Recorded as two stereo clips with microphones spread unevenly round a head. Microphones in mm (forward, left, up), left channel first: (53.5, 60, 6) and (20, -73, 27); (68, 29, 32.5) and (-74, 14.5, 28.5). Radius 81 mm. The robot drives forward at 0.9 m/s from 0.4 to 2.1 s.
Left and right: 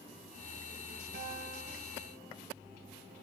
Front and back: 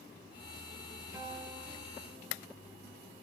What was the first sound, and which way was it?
A guitar, 100° right.